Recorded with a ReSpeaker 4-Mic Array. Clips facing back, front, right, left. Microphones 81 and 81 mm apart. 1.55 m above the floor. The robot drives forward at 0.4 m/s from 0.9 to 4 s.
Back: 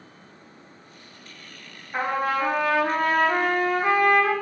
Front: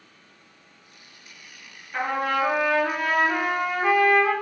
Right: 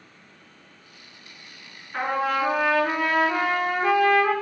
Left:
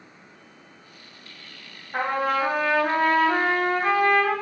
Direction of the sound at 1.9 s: 120° left.